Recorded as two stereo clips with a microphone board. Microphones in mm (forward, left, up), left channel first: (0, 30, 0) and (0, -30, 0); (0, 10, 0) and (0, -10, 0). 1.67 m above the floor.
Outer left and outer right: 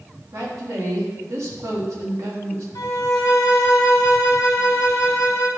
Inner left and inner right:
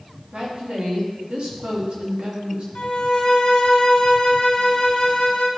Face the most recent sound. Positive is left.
turn(degrees=80)